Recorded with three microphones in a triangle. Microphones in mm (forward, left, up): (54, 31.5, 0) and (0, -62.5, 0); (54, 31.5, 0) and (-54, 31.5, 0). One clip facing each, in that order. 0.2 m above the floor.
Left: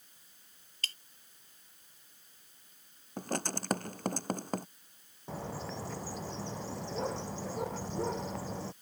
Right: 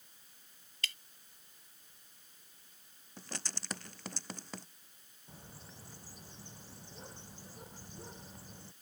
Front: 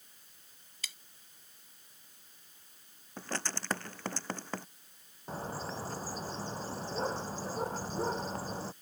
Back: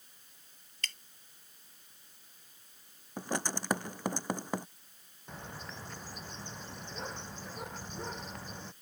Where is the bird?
55° left.